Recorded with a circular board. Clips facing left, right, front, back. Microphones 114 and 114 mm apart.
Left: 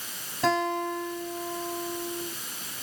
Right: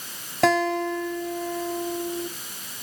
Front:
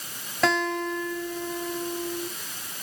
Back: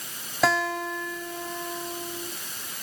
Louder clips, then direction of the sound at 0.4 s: Right 5 dB, even; 95° right.